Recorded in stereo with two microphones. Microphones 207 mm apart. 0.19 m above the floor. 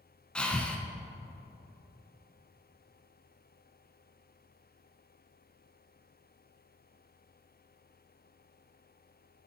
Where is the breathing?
5° left (ahead or behind), 0.6 m.